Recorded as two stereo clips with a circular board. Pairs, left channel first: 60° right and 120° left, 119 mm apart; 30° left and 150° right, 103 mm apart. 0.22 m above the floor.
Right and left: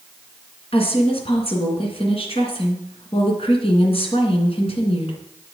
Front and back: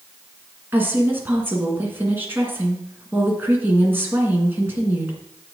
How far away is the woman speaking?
About 2.5 m.